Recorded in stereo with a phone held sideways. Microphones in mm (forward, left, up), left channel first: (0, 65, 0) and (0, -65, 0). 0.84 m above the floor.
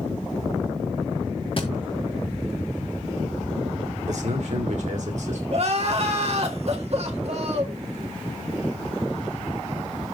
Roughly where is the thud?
Left.